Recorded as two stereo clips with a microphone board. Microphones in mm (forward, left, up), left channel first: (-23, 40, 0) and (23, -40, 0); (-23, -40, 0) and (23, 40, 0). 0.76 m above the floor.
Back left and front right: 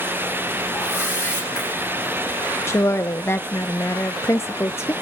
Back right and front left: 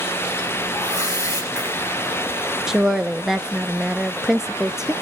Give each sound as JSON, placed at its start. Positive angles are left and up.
{"t": 0.7, "sound": "a whoosh", "azimuth_deg": -175, "distance_m": 7.5}
{"t": 2.7, "sound": "a woman speaking", "azimuth_deg": 140, "distance_m": 0.5}